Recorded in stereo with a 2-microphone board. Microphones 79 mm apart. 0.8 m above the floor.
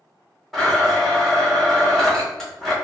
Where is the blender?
Centre (ahead or behind), 1.3 m.